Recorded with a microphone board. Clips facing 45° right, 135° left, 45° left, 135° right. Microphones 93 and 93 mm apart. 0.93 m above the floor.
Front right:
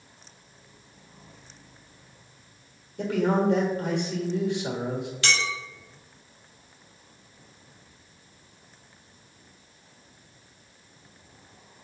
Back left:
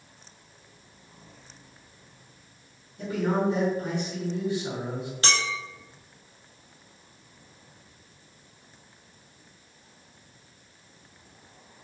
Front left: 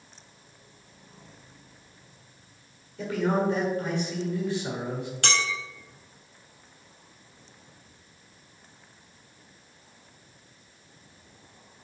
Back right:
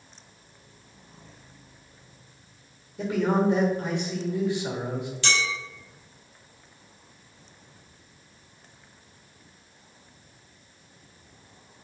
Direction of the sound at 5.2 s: 80° left.